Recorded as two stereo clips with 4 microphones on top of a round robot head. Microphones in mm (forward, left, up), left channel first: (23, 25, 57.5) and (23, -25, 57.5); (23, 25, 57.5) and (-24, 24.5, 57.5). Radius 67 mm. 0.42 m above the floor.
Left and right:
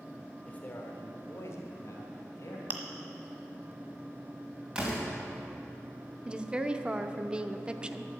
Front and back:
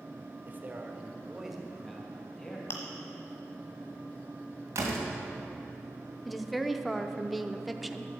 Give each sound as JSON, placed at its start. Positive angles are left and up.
{"t": 0.5, "sound": "a man speaking", "azimuth_deg": 150, "distance_m": 1.7}
{"t": 2.7, "sound": "chewing", "azimuth_deg": -40, "distance_m": 1.3}
{"t": 4.8, "sound": "a door slam", "azimuth_deg": -160, "distance_m": 2.5}
{"t": 6.2, "sound": "a woman speaking", "azimuth_deg": -90, "distance_m": 0.7}